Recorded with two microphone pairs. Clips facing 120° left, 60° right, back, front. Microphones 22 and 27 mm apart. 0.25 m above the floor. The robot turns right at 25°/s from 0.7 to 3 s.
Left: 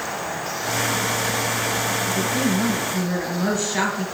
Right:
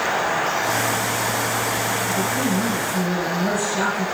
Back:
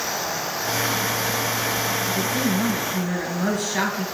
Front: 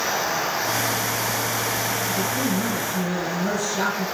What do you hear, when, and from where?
2.1 s a woman speaking: 145° left, 5 m; by 4.0 s 170° left, 5 m